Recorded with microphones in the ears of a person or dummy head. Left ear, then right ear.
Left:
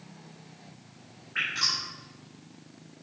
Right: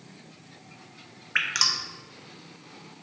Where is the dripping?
60° right (ahead or behind), 1.0 m.